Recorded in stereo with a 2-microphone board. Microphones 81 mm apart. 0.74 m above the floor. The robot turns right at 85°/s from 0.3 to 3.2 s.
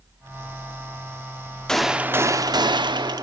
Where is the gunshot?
170° left, 0.5 m; by 3.2 s 60° right, 0.5 m.